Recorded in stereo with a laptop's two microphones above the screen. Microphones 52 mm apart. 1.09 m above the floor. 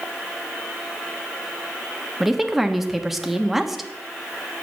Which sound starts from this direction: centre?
A woman speaking, at 2.2 s.